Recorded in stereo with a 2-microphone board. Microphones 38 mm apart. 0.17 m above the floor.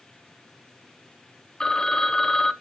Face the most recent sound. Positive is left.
turn(degrees=20)  # may be behind; listen again after turning